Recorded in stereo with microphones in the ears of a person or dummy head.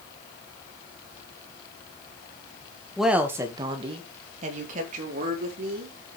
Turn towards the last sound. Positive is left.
turn(degrees=-55)  # may be behind; listen again after turning